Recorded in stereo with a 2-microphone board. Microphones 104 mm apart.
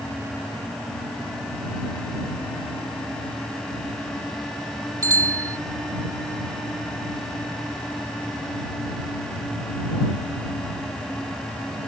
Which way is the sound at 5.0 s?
30° right (ahead or behind).